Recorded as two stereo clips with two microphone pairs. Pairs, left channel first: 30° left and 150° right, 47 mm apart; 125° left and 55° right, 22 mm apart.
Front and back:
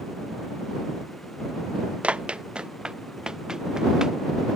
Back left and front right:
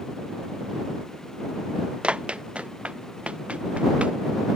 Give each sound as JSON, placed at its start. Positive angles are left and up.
{"t": 2.0, "sound": "running footsteps", "azimuth_deg": -85}